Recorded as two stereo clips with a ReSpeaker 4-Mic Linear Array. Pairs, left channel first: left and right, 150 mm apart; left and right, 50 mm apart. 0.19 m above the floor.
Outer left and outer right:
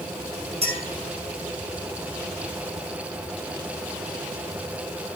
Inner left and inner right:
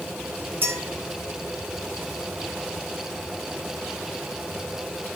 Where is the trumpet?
I don't hear a trumpet.